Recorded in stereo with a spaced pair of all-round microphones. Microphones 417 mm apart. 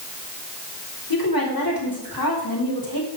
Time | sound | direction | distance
1.1 | a woman speaking | 55° left (ahead or behind) | 4 m